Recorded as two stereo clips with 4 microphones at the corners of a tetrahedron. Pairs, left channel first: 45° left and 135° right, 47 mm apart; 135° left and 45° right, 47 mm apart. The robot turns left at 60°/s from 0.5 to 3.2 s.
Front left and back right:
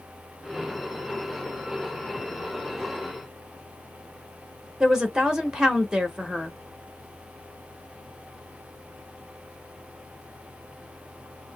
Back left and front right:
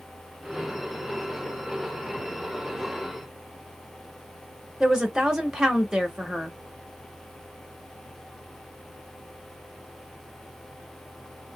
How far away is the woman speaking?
About 0.9 m.